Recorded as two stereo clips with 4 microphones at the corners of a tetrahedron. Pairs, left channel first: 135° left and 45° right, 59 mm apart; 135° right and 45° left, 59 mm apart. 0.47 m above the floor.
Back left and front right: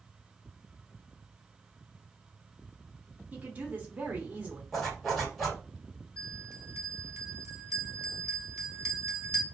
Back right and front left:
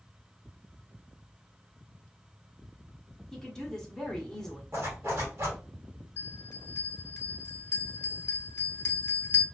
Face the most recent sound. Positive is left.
turn(degrees=-85)